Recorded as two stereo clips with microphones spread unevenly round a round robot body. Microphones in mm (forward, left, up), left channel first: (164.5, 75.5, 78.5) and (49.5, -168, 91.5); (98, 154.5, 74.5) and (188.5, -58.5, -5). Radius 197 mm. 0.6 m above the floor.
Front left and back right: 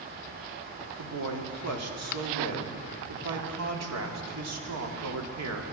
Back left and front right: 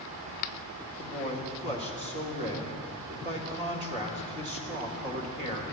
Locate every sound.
1.0 s a man speaking: 125° right, 1.6 m